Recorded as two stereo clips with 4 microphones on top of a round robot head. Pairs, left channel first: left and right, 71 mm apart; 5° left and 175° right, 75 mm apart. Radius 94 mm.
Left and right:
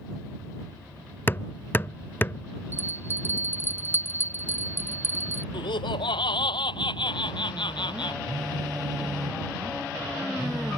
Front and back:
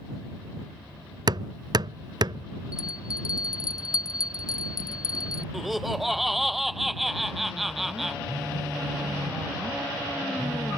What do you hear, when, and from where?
1.3 s hammering: 155° left
2.7 s a bell: 30° right
5.5 s laughter: 95° left
8.3 s a phone buzzing: 130° right